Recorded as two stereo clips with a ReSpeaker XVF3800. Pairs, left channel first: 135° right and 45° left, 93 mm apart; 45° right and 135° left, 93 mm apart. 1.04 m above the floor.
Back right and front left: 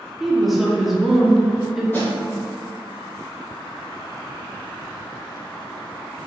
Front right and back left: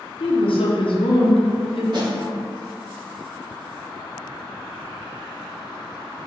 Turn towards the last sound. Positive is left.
turn(degrees=165)